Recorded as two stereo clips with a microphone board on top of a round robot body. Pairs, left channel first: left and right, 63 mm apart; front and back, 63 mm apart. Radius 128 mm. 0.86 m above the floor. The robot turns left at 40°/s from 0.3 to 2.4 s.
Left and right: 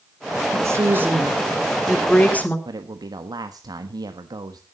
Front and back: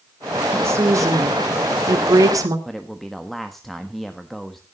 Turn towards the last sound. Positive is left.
turn(degrees=-85)